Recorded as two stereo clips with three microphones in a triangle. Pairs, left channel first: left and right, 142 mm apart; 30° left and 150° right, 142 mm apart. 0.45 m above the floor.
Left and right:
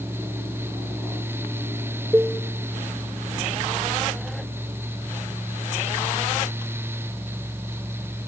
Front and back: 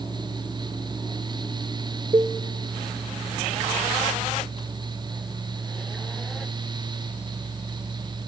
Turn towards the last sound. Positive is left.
turn(degrees=-150)